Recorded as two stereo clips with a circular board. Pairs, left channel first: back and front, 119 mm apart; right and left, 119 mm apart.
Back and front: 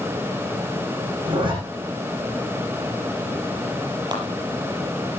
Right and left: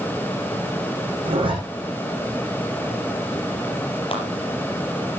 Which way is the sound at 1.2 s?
45° left.